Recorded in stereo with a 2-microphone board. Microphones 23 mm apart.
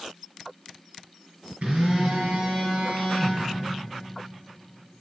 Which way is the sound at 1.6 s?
75° right (ahead or behind).